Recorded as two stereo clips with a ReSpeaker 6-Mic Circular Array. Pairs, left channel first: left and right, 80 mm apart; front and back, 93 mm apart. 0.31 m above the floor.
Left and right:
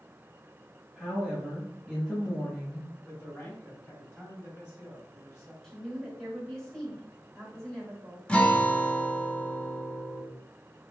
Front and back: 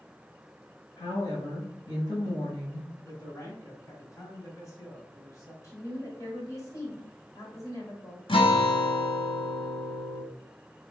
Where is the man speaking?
40° left, 1.6 m.